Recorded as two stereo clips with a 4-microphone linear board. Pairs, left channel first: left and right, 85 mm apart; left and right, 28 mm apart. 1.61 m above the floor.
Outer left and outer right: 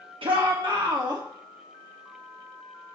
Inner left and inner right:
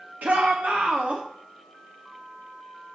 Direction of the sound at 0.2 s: 80° right.